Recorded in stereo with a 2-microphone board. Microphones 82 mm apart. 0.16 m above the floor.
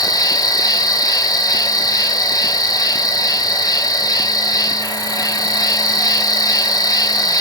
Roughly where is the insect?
Left.